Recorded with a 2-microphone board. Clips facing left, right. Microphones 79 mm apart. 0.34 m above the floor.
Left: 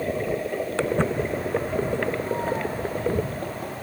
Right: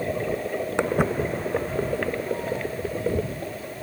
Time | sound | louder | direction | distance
0.8 | footsteps | right 1 dB | 15° right (ahead or behind) | ?